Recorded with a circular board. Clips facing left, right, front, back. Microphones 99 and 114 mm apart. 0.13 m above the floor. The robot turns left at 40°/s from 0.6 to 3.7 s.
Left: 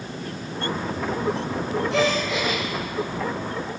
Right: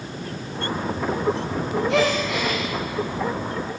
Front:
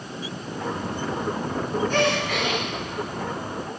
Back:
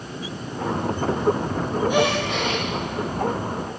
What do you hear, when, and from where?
1.9 s a gasp: 100° right, 5 m; by 2.6 s 130° right, 5 m